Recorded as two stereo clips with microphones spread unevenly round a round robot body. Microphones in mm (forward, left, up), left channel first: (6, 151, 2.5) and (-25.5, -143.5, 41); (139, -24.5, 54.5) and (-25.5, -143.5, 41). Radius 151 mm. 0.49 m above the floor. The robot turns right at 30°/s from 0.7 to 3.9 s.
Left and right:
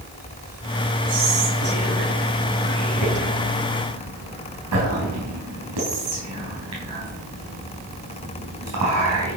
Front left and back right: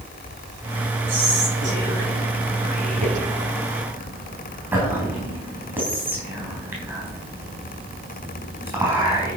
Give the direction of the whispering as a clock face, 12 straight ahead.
5 o'clock.